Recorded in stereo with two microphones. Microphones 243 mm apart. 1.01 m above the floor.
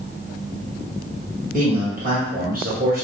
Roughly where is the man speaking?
Right.